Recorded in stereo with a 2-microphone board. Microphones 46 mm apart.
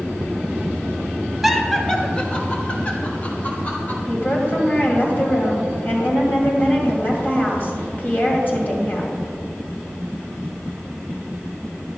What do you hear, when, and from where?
1.4 s laughter: 5° right (ahead or behind), 0.9 m; by 4.0 s 35° left (ahead or behind), 3 m
4.1 s a woman speaking: 45° left (ahead or behind), 2 m